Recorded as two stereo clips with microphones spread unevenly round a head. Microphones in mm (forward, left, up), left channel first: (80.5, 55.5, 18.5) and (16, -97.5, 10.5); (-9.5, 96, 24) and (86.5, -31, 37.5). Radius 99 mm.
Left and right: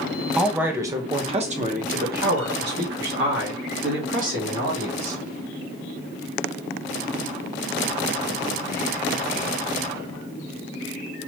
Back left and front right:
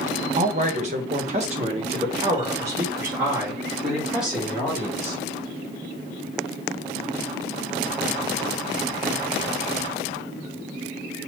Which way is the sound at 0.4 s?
25° right.